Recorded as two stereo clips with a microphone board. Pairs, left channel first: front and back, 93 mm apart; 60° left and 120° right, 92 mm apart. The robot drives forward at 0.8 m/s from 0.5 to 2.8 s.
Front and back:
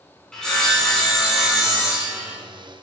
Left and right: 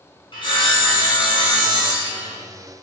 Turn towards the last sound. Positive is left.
turn(degrees=110)